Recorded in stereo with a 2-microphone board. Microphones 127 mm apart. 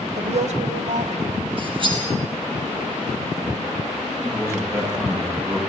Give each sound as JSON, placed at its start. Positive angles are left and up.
{"t": 0.2, "sound": "a woman speaking", "side_deg": -60, "distance_m": 1.7}
{"t": 1.6, "sound": "cutlery clinking", "side_deg": -40, "distance_m": 6.0}
{"t": 4.2, "sound": "a man speaking", "side_deg": -20, "distance_m": 8.5}